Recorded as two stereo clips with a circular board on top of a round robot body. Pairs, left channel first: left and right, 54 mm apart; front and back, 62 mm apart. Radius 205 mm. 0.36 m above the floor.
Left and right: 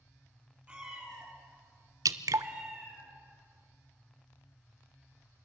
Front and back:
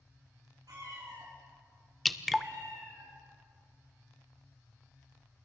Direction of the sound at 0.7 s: 160° right.